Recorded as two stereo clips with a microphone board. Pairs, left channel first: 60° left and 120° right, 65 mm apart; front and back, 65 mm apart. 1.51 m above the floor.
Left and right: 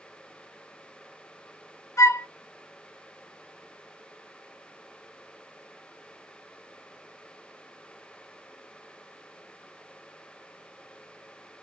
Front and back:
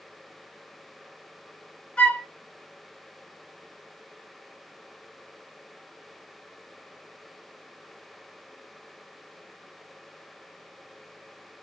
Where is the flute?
65° left, 0.6 m.